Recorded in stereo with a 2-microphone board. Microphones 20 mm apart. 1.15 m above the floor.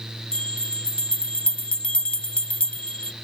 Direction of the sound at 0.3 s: 80° left.